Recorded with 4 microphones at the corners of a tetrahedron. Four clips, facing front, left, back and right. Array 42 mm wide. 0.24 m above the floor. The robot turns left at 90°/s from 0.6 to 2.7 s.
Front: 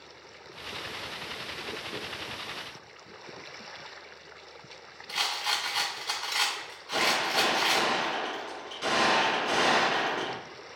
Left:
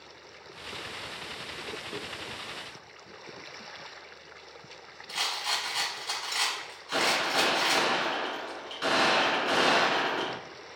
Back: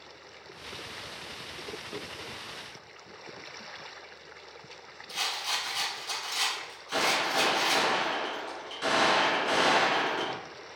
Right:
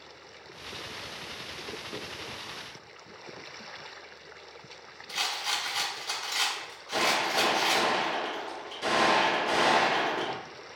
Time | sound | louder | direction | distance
5.1 | a rattle | even, front 2 dB | 25° left | 1.7 m
6.9 | a gunshot | even, front 1 dB | 100° left | 1.9 m